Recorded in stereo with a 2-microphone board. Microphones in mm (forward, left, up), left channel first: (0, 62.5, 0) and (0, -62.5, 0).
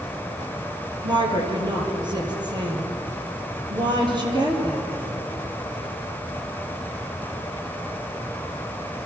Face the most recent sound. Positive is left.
turn(degrees=-35)  # may be behind; listen again after turning